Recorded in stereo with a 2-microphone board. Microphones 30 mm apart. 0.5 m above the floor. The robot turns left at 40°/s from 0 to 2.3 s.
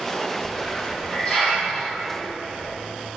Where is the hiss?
Centre (ahead or behind), 1.2 m; by 2.8 s 55° left (ahead or behind), 1.2 m.